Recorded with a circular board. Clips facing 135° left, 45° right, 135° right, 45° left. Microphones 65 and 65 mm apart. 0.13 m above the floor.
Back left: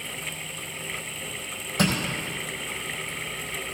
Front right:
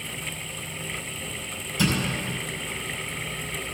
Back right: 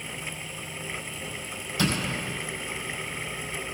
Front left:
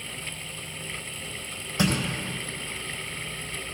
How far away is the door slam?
About 4 m.